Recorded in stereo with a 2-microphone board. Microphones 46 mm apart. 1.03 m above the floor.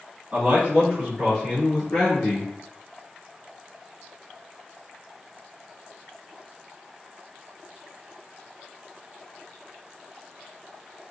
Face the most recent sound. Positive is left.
turn(degrees=45)  # may be behind; listen again after turning